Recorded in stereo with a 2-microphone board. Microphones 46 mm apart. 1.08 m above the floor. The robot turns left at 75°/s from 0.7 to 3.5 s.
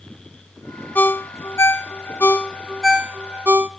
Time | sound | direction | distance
0.9 | a ringtone | 45° left (ahead or behind) | 1.3 m